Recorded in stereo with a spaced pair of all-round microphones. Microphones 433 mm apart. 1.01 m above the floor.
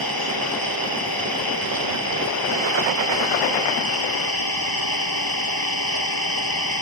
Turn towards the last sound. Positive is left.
turn(degrees=55)  # may be behind; listen again after turning